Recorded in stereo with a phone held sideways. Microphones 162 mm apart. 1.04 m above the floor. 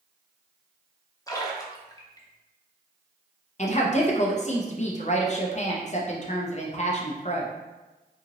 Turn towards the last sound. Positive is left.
turn(degrees=45)  # may be behind; listen again after turning